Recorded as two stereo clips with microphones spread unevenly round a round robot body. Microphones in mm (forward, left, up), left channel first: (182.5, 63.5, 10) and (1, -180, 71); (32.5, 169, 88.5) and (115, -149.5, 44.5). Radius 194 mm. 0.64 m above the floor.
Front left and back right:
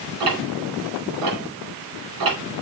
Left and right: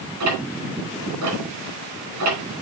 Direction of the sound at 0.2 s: 115° right.